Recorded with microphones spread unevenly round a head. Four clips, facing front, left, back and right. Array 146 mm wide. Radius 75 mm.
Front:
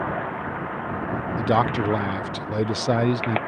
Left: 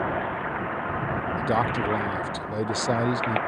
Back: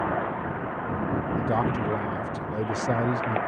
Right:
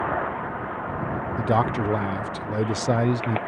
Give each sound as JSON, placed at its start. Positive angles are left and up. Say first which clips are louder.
{"t": 1.4, "sound": "a man speaking", "louder": "right 3 dB, front 7 dB", "azimuth_deg": 5}